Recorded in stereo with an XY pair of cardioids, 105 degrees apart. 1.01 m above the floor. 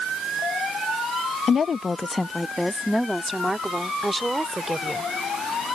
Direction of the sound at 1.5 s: 55° left.